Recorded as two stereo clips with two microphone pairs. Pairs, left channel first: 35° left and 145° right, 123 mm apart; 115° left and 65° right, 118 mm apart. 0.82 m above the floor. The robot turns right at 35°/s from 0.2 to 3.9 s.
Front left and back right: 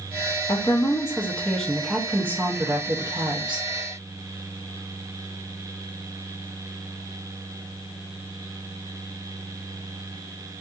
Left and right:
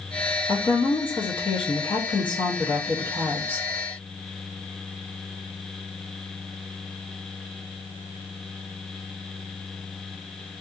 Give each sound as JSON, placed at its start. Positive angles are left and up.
{"t": 0.5, "sound": "a woman speaking", "azimuth_deg": 80, "distance_m": 0.6}